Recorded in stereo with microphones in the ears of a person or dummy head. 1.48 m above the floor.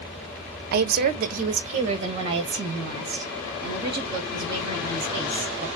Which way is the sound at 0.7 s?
55° right (ahead or behind).